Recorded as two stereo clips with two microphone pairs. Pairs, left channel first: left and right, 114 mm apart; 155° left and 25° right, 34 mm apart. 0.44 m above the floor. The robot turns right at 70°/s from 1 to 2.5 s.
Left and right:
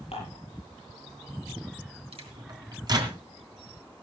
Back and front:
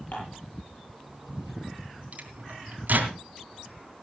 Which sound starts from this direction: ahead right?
A microwave, at 2.1 s.